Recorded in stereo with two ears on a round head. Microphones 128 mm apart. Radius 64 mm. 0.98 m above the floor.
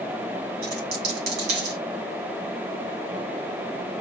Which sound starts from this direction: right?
A dropped coin, at 0.6 s.